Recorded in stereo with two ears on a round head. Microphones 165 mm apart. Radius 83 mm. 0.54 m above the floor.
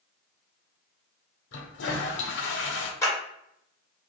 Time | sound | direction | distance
1.5 | a toilet flushing | 75° left (ahead or behind) | 0.7 m
3.0 | a clap | 15° left (ahead or behind) | 1.3 m